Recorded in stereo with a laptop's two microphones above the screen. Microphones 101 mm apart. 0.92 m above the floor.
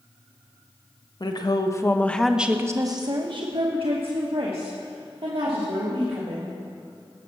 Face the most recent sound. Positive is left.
turn(degrees=-75)  # may be behind; listen again after turning